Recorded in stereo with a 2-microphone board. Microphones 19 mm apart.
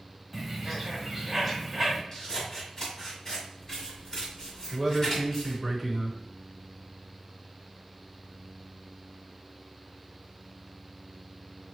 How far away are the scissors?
About 1.7 m.